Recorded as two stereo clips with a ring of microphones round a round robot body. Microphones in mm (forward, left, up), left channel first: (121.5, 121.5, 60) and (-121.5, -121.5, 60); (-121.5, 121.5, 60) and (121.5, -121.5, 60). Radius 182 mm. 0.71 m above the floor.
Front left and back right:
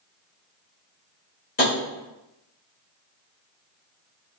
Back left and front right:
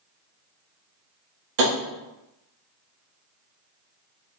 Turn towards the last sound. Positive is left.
turn(degrees=-20)